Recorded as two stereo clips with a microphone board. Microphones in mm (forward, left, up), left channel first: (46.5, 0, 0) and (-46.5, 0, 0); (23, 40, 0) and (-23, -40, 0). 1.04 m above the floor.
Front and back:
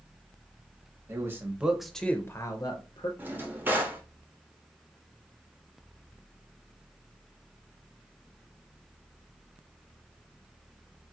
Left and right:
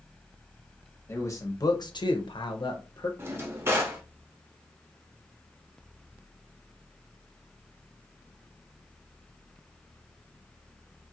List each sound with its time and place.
1.1 s a man speaking: 120° left, 0.8 m; by 3.1 s 20° left, 0.7 m
3.2 s a drawer: 140° right, 0.7 m